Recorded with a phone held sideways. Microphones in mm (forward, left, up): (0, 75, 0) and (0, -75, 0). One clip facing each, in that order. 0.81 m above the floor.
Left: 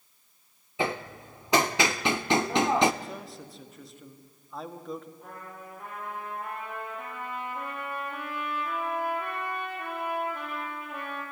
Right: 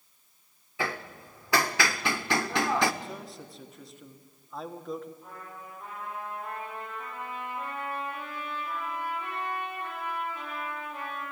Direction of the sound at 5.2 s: 60° left (ahead or behind).